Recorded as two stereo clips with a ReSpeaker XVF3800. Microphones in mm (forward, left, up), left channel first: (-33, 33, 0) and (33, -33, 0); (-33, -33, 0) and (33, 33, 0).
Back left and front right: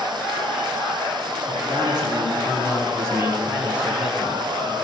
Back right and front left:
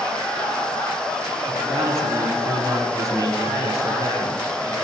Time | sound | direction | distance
1.5 | a man speaking | 15° right | 3 m